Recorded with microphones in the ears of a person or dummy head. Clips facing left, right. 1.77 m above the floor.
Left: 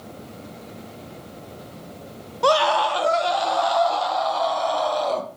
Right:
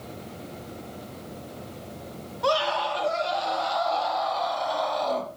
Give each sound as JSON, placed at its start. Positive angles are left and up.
{"t": 2.4, "sound": "a scream", "side_deg": 60, "distance_m": 0.7}